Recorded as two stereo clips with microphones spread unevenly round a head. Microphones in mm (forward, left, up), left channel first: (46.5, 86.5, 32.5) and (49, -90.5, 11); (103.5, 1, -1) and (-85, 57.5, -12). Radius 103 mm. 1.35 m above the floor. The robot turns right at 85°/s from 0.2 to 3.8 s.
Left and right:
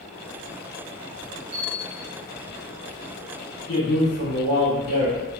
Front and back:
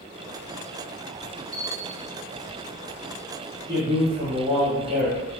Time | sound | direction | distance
1.5 | a bell | 50° right | 1.7 m
3.7 | a man speaking | 90° left | 1.3 m